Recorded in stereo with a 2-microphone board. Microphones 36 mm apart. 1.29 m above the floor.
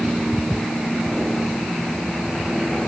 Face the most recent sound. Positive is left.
No sound to turn to.